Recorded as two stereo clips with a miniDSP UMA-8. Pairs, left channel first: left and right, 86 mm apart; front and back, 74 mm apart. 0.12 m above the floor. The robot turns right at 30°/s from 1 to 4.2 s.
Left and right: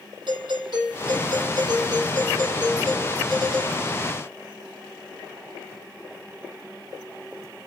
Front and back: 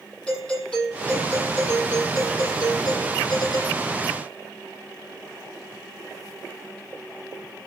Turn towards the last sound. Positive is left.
turn(degrees=20)